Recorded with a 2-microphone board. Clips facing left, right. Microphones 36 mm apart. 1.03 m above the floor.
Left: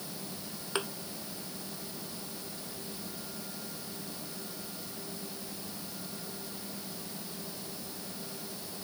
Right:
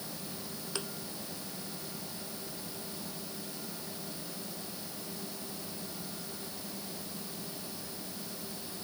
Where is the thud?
35° left (ahead or behind).